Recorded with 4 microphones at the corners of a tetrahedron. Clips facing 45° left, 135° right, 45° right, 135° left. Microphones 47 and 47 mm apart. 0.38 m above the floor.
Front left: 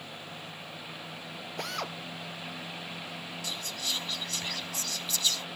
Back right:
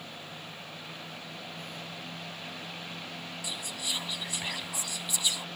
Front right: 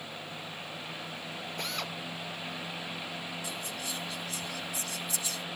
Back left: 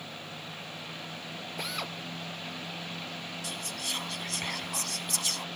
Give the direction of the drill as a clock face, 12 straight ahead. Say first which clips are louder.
Front left 6 dB, back left 1 dB; 10 o'clock.